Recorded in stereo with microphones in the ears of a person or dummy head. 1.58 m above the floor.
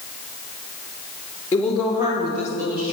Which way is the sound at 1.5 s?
20° left (ahead or behind).